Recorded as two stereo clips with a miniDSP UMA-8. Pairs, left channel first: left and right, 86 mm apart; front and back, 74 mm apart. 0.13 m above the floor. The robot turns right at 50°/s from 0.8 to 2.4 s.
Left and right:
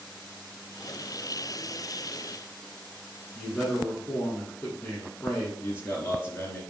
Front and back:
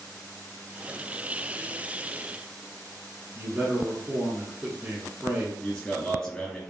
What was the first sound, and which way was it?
A man speaking, 145° left.